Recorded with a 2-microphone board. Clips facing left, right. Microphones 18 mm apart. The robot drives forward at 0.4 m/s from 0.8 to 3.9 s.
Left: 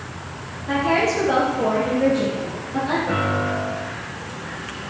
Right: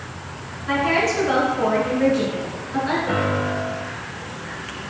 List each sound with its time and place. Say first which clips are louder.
0.7 s a woman speaking: even; 25° right (ahead or behind), 1.7 m; by 3.0 s 30° right (ahead or behind), 1.5 m
3.1 s a piano: even; 15° right (ahead or behind), 1.0 m; by 3.9 s 10° right (ahead or behind), 1.3 m